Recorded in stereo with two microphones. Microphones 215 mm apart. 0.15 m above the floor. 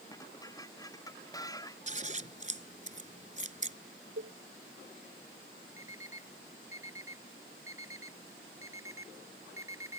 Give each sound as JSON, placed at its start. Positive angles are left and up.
{"t": 0.1, "sound": "dishes clattering", "side_deg": 15}
{"t": 1.9, "sound": "scissors", "side_deg": -35}
{"t": 4.2, "sound": "a cowbell", "side_deg": -70}
{"t": 5.8, "sound": "an alarm clock", "side_deg": -80}